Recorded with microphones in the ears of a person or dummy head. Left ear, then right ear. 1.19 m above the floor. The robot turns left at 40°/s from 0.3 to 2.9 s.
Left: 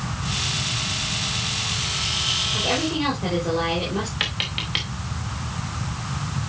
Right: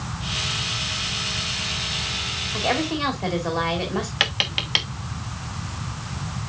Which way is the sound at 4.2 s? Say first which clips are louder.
Right 5 dB; 30° right (ahead or behind).